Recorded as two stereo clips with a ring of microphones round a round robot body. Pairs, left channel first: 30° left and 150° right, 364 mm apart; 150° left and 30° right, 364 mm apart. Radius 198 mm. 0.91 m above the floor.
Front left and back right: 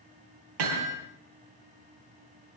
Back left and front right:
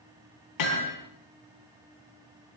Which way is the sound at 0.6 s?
170° right.